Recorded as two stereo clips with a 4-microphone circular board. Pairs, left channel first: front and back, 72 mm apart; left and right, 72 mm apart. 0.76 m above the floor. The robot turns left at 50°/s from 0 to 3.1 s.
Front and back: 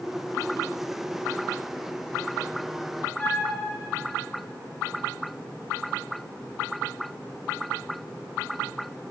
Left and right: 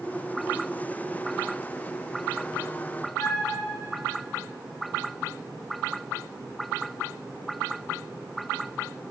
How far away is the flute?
About 3 m.